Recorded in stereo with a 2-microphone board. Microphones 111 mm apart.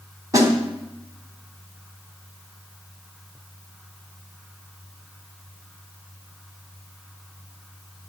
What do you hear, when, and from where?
0.3 s a snare drum: 30° right (ahead or behind), 2.5 m